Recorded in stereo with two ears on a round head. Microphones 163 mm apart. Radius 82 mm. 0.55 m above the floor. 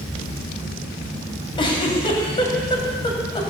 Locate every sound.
1.6 s a giggle: 25° left (ahead or behind), 3 m